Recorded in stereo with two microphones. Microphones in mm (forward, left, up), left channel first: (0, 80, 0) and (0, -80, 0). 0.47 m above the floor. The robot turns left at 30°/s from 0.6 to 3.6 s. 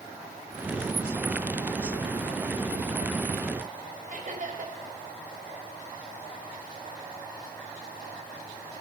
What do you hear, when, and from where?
4.1 s laughter: 60° right (ahead or behind), 3 m